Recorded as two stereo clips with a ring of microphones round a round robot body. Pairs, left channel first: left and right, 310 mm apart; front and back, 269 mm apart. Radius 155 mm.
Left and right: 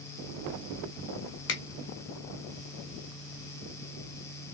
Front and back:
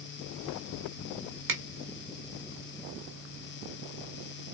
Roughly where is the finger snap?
Behind left.